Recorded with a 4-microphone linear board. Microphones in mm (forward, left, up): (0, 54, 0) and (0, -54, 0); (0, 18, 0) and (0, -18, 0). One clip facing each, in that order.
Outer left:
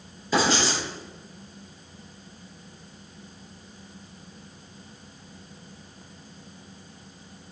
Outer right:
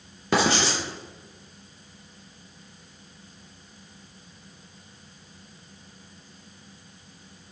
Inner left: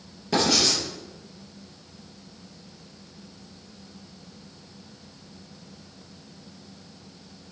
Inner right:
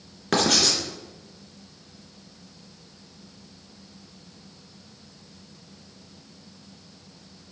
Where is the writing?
65° right (ahead or behind), 2.5 m.